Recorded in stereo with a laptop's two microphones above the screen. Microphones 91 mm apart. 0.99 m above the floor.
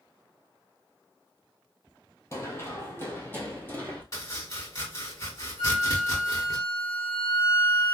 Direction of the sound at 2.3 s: 30° left (ahead or behind).